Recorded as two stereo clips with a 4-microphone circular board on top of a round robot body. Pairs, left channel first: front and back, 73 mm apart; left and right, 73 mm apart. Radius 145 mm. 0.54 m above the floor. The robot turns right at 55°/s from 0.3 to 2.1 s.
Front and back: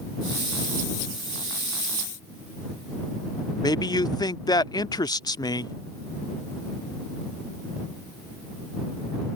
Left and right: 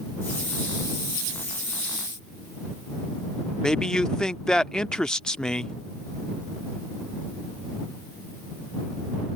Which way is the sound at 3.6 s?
10° left.